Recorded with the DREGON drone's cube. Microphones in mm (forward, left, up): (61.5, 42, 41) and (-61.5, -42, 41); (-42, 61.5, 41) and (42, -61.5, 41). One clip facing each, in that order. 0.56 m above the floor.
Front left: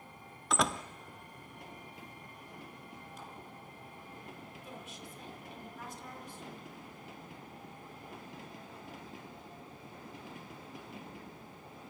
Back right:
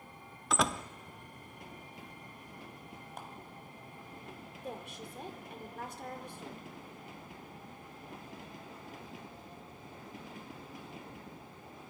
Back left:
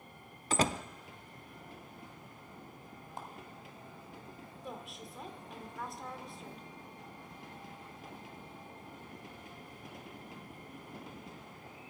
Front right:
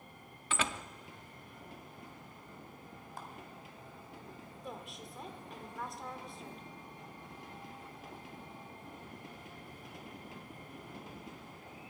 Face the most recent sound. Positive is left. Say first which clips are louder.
# back right 8 dB, back left 1 dB
turn(degrees=-145)